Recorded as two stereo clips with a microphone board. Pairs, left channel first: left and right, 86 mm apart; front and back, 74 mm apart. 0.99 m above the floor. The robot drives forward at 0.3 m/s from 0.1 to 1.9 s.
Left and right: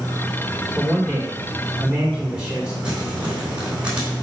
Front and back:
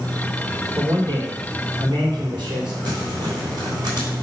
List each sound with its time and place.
0.8 s a man speaking: 165° right, 2.5 m; by 2.7 s 170° right, 2.5 m
2.8 s crumpling: 165° right, 3 m